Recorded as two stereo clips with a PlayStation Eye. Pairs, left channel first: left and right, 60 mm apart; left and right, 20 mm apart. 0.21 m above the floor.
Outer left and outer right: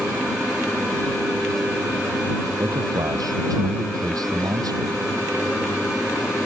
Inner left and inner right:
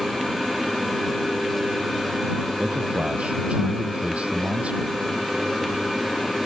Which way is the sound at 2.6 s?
75° right (ahead or behind).